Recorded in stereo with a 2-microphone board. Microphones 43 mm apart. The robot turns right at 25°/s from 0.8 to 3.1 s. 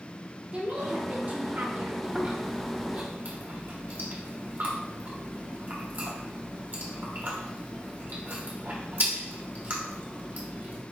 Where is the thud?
I don't hear a thud.